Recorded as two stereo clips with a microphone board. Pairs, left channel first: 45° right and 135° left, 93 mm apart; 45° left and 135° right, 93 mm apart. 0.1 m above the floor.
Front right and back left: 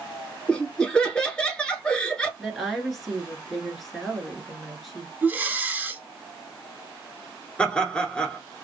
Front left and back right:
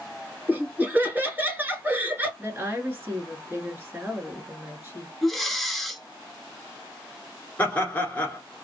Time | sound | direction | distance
0.5 | laughter | 105° right | 1.1 m
2.4 | a woman speaking | 135° right | 1.4 m
5.2 | breathing | 130° left | 0.6 m
7.6 | laughter | 15° left | 1.1 m